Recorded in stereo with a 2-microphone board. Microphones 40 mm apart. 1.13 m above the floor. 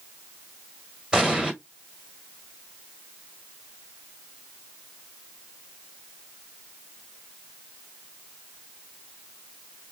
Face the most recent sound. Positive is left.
turn(degrees=-20)  # may be behind; listen again after turning